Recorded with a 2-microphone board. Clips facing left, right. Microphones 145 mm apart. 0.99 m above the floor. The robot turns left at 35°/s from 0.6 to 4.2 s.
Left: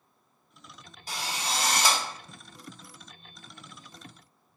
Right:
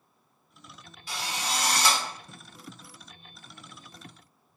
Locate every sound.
1.1 s a drill: 45° left, 0.7 m; by 2.0 s 15° left, 0.7 m